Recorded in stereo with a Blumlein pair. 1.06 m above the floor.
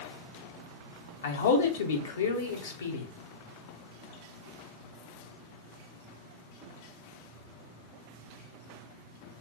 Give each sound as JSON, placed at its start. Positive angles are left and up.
{"t": 1.2, "sound": "a man speaking", "azimuth_deg": 65, "distance_m": 0.8}